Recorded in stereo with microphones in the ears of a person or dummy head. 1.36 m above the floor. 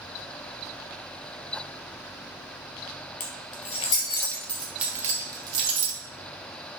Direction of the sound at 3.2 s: 50° left (ahead or behind).